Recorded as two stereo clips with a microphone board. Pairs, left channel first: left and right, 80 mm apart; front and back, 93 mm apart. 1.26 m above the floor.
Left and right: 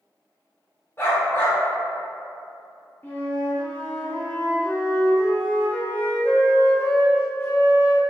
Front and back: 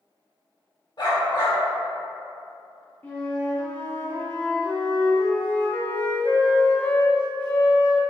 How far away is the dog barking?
About 1.7 m.